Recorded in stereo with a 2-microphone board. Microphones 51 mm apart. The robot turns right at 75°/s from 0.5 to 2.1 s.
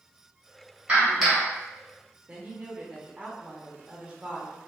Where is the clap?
35° right, 1.9 m; by 1.5 s 10° left, 1.9 m.